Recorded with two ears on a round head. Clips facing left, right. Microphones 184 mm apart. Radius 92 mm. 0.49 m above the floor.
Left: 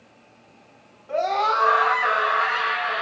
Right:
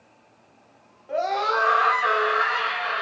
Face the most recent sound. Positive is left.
turn(degrees=-65)  # may be behind; listen again after turning